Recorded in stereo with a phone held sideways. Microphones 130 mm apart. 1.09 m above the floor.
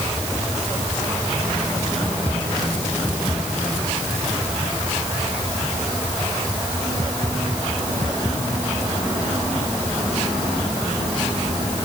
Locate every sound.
Only background noise.